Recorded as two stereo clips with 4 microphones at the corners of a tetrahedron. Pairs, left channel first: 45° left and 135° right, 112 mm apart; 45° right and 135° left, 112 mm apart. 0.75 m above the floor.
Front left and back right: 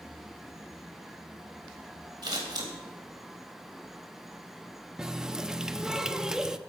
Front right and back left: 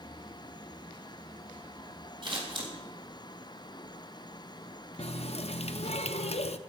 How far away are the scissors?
About 3.5 m.